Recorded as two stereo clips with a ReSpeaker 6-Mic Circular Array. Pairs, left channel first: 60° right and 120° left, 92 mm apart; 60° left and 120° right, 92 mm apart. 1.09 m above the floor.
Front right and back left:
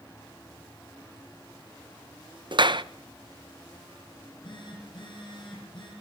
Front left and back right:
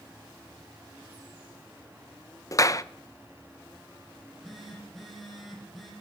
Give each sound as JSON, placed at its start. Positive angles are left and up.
{"t": 2.5, "sound": "a clap", "azimuth_deg": 105, "distance_m": 0.7}
{"t": 4.2, "sound": "a phone buzzing", "azimuth_deg": -30, "distance_m": 10.0}